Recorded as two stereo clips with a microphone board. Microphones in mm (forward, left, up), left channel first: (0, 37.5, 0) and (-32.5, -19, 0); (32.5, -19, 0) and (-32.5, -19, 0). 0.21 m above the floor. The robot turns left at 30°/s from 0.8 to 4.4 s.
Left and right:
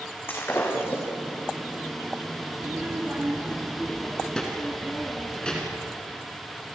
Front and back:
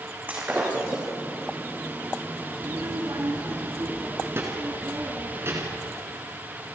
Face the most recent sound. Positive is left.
turn(degrees=135)